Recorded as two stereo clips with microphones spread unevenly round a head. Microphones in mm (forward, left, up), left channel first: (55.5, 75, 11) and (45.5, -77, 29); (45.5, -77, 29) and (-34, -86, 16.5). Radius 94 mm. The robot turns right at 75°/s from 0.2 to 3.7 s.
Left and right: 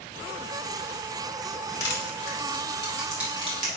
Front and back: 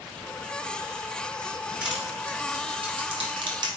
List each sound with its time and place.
1.8 s crushing: 80° left, 1.8 m; by 3.7 s 140° right, 1.8 m